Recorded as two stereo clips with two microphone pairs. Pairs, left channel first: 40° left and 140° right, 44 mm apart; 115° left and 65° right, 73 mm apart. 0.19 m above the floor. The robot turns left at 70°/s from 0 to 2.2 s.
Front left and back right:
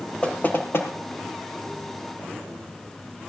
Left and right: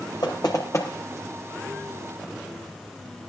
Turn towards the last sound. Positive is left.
turn(degrees=-30)